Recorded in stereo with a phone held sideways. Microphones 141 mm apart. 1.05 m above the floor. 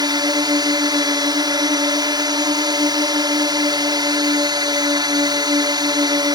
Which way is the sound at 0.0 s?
30° right (ahead or behind).